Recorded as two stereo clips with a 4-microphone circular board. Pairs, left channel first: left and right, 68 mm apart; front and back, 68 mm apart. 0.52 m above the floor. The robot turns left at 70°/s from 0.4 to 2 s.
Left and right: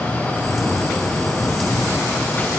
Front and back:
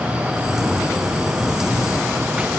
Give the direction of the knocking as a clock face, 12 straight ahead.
No knocking in this recording.